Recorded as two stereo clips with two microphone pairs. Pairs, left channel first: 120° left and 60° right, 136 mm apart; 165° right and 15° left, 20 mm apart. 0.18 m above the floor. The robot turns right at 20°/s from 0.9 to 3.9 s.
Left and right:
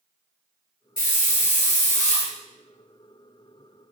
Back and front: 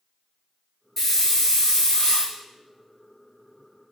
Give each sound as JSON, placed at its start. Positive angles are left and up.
{"t": 1.0, "sound": "a hiss", "azimuth_deg": 115, "distance_m": 0.9}